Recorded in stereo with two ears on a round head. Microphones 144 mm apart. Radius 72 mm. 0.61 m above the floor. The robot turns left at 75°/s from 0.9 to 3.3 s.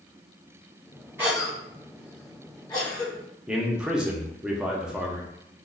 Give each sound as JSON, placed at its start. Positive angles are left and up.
{"t": 1.2, "sound": "a cough", "side_deg": -15, "distance_m": 1.4}
{"t": 3.5, "sound": "a man speaking", "side_deg": -5, "distance_m": 0.6}